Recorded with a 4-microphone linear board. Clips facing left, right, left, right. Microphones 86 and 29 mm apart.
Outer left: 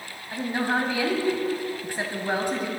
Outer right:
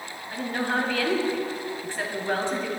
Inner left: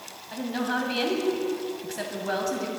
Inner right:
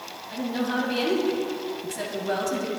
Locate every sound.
0.3 s a woman speaking: 15° left (ahead or behind), 1.7 m